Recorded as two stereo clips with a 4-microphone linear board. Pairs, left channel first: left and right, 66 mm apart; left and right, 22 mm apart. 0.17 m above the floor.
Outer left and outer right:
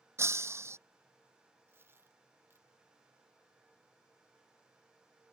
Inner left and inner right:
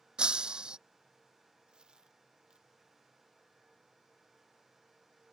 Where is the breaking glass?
45° right (ahead or behind).